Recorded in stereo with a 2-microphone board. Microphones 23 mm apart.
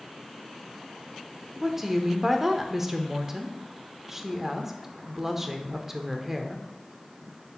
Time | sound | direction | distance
1.6 | a woman speaking | 20° right (ahead or behind) | 0.8 m